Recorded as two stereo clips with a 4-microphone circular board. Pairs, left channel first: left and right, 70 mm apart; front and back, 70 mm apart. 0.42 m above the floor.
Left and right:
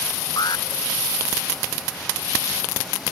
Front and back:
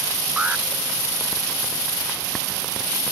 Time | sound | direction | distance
0.4 | an alarm | 110° left | ?